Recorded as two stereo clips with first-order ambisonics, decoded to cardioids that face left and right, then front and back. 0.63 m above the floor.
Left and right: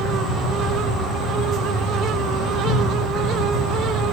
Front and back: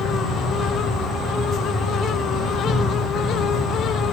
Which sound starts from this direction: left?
An insect, at 0.0 s.